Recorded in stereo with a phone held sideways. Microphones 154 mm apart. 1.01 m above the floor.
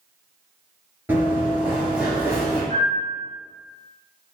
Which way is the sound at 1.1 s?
10° right (ahead or behind).